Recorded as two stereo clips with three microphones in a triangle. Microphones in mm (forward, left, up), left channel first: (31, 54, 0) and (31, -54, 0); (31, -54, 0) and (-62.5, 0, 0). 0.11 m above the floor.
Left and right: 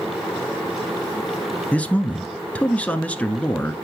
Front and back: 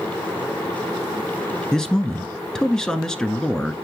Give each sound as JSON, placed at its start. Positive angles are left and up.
{"t": 1.7, "sound": "a man speaking", "azimuth_deg": 40, "distance_m": 1.1}